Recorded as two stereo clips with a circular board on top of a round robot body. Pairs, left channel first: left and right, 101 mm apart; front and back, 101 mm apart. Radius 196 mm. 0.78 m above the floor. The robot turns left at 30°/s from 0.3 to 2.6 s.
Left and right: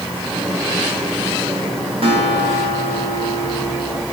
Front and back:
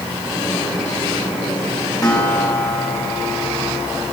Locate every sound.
2.0 s a guitar: 60° right, 4.5 m; by 4.0 s 75° right, 4.5 m